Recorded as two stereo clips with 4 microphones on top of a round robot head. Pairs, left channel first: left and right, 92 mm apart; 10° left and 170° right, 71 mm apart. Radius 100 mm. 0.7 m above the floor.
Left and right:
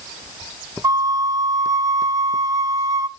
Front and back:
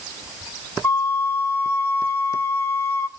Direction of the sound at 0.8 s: 45° right.